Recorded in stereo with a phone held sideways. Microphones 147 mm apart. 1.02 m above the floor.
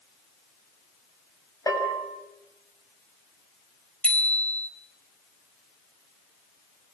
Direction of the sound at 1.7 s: 25° left (ahead or behind).